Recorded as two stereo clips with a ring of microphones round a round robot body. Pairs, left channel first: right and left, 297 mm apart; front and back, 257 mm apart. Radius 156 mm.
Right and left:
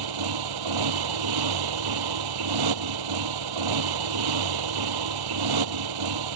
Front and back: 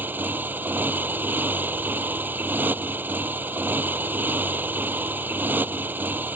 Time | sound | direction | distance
0.0 | a motorcycle | 95° left | ?